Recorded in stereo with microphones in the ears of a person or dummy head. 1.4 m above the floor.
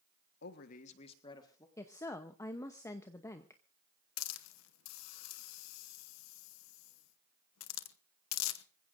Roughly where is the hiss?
Left.